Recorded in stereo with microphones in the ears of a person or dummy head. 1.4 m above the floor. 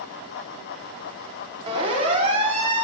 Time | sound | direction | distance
1.7 | a siren | 30° right (ahead or behind) | 5.5 m